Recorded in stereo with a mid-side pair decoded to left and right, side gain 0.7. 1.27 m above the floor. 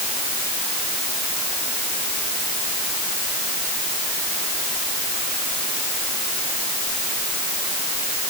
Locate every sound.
Only background noise.